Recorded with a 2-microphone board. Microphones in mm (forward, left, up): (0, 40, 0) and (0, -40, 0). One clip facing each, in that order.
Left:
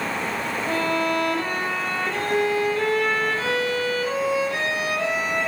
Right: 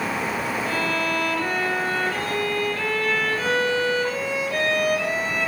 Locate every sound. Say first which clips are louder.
0.7 s a violin: left 5 dB; 30° left (ahead or behind), 4 m